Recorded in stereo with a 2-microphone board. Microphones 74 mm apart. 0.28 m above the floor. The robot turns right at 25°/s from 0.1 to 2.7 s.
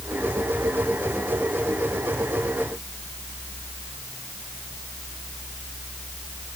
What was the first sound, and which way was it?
Only background noise.